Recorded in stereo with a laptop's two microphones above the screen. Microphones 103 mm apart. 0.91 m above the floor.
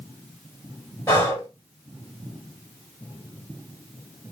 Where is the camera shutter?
I don't hear a camera shutter.